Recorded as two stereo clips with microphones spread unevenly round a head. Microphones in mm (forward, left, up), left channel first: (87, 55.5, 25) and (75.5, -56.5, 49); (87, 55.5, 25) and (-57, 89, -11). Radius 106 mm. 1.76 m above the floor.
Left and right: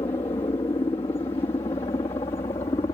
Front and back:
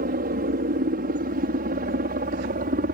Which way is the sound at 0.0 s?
155° left.